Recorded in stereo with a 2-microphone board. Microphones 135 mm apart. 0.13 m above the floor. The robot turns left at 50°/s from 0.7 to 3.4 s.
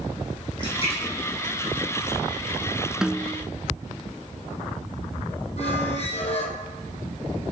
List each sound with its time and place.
0.6 s a splash: 40° left (ahead or behind), 7 m; by 2.5 s 50° left (ahead or behind), 7 m
3.0 s a snare drum: 5° right (ahead or behind), 0.6 m; by 3.5 s 15° right (ahead or behind), 0.6 m
5.6 s a squeak: 50° left (ahead or behind), 3 m